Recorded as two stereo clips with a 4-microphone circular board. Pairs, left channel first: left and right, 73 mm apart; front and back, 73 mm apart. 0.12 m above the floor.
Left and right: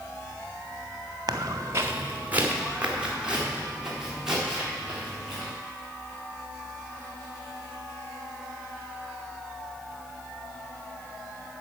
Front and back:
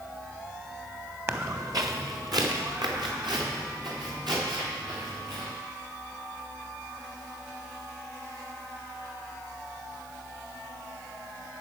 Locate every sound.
1.3 s footsteps: 125° right, 1.3 m; by 5.5 s 175° right, 7.5 m